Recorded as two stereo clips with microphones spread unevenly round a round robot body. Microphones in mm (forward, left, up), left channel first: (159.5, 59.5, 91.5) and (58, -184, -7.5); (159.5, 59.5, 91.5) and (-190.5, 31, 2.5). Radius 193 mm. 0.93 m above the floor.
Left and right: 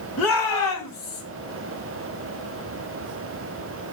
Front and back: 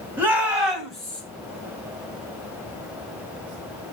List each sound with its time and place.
0.2 s a shout: 100° left, 6.5 m; by 1.2 s 95° left, 6.5 m